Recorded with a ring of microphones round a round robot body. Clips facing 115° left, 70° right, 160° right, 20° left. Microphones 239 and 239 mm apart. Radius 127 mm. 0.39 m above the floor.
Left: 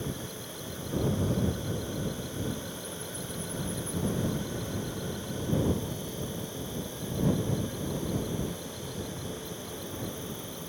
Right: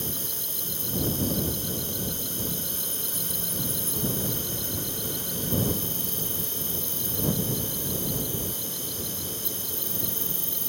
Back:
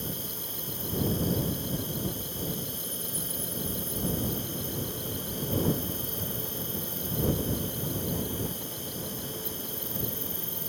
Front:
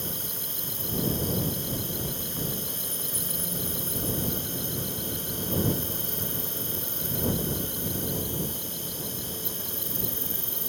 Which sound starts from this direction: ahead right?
An insect, at 0.0 s.